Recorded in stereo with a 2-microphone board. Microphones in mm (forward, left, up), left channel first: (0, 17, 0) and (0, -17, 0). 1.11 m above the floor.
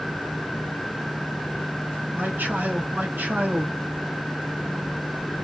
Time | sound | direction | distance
2.1 | a man speaking | 65° right (ahead or behind) | 1.7 m